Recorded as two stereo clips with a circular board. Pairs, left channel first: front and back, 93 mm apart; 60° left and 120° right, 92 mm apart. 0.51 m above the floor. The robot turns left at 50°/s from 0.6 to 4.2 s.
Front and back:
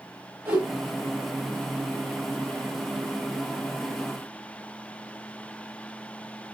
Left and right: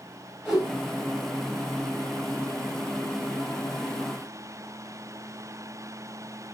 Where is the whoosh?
145° left, 1.0 m; by 0.7 s 140° left, 1.0 m.